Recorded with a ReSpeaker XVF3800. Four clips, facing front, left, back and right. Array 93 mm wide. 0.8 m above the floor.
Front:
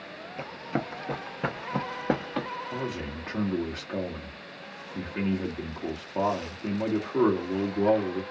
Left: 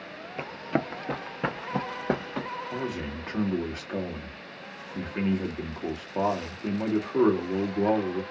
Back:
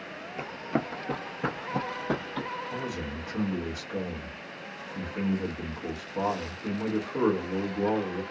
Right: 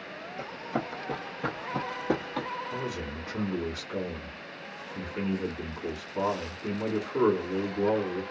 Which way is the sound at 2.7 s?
50° left.